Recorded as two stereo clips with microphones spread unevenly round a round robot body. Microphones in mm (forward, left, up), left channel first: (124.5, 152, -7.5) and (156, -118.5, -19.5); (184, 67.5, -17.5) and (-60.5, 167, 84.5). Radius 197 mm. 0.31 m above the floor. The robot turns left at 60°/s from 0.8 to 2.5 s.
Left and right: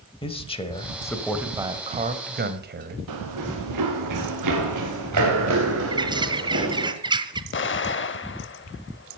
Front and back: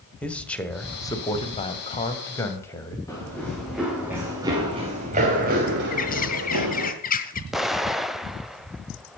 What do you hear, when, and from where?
0.2 s a man speaking: 35° left, 1.9 m; by 3.0 s 70° right, 1.9 m
3.1 s running footsteps: 105° right, 3.5 m; by 6.9 s 150° right, 4 m
5.9 s a bird: 15° right, 1.3 m
7.5 s an explosion: 55° left, 0.7 m